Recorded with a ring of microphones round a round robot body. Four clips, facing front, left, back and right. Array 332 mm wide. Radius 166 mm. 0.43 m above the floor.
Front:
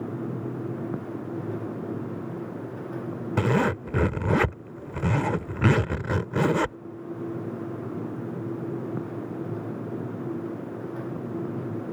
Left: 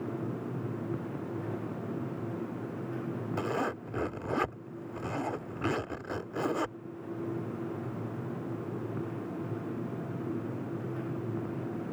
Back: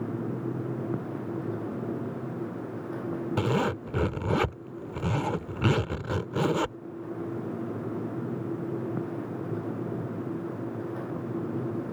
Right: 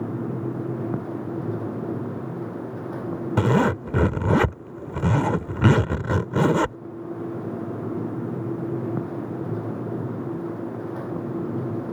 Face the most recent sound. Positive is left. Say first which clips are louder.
# right 13 dB, front 5 dB
turn(degrees=-75)